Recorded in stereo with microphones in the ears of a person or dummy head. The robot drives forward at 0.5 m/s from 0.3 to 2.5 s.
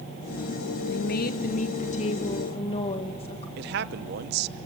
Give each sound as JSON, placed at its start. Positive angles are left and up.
{"t": 0.9, "sound": "a woman speaking", "side_deg": 55, "distance_m": 1.0}
{"t": 3.6, "sound": "a man speaking", "side_deg": -60, "distance_m": 1.0}